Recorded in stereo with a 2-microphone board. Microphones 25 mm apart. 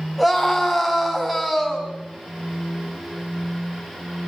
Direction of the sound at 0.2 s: Centre (ahead or behind).